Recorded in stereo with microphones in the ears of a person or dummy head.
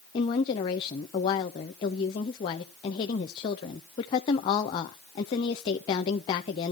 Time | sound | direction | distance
0.1 | a woman speaking | 25° left (ahead or behind) | 0.6 m